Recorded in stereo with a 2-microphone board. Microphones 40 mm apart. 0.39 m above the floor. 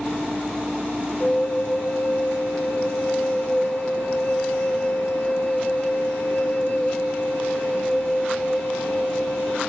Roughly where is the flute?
Left.